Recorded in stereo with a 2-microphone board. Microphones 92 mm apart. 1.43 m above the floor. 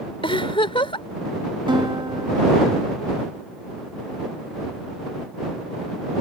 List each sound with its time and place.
0.2 s a giggle: 70° left (ahead or behind)
1.7 s a guitar: 55° right (ahead or behind)